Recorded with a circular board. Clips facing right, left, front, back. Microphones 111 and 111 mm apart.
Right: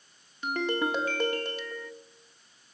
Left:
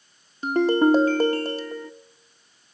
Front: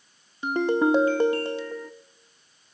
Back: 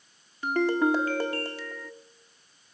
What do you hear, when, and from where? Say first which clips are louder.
0.4 s a ringtone: left 11 dB, front 2 dB; 60° left, 1.2 m